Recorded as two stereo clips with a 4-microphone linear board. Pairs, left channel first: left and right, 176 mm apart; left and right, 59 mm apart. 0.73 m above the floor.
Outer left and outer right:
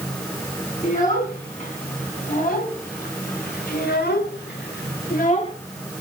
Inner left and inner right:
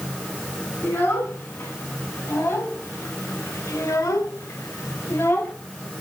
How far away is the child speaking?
About 6 m.